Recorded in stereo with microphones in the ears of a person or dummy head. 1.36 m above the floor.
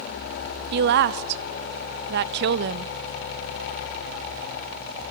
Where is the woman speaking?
60° right (ahead or behind), 0.6 m.